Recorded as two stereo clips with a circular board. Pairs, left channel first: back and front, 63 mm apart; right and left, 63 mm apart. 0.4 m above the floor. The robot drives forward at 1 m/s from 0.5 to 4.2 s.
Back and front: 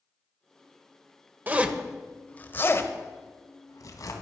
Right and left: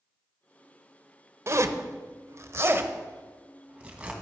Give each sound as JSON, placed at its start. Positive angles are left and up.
{"t": 1.5, "sound": "a zipper", "azimuth_deg": 55, "distance_m": 1.0}